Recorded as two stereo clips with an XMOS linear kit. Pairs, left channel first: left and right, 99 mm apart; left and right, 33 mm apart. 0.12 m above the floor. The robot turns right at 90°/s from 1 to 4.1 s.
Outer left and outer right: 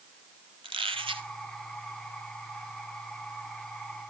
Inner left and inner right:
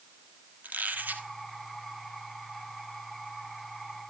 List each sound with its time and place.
0.6 s a squeak: 70° right (ahead or behind), 1.5 m; by 1.3 s 60° right (ahead or behind), 1.5 m